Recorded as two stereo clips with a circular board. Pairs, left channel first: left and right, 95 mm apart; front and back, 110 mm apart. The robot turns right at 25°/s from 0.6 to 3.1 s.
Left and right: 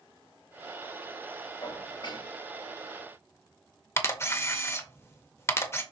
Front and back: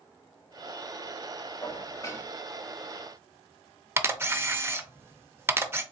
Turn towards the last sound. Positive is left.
turn(degrees=130)